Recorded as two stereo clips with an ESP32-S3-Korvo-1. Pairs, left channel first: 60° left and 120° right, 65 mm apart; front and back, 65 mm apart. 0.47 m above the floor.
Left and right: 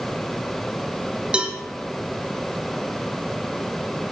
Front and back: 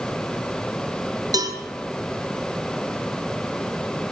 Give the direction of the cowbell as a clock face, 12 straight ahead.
6 o'clock.